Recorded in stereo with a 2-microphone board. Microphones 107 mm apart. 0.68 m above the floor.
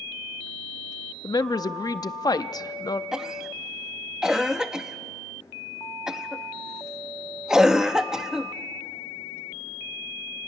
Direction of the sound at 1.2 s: 35° left (ahead or behind).